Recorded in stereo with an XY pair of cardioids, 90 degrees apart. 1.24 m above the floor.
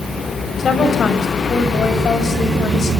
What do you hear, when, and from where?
0.6 s a woman speaking: 50° left, 6 m